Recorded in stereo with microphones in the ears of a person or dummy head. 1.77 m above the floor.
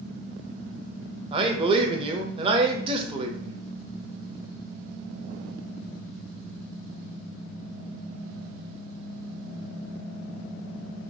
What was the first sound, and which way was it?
A man speaking, 35° right (ahead or behind).